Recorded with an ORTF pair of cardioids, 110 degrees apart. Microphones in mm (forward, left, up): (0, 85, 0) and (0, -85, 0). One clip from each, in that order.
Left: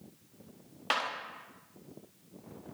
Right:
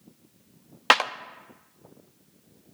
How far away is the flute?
I don't hear a flute.